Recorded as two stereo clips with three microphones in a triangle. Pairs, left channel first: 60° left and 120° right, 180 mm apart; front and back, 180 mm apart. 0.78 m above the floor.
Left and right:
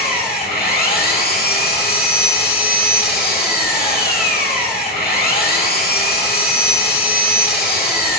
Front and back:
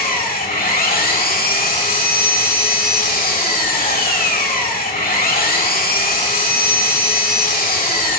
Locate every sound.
0.0 s an engine running: 30° left, 1.9 m